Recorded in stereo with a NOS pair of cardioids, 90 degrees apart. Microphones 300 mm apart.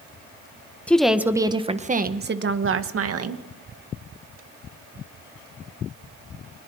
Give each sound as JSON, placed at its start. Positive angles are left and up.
{"t": 0.9, "sound": "a woman speaking", "azimuth_deg": 5, "distance_m": 1.6}